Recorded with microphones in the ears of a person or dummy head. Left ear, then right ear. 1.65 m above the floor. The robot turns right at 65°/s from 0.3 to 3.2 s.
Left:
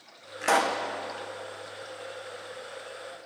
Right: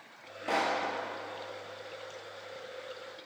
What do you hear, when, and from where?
0.4 s a pop: 55° left (ahead or behind), 1.1 m; by 0.8 s 30° left (ahead or behind), 1.1 m